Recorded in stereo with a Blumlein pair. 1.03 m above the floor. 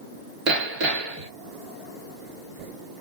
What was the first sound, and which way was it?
Hammering, 40° right.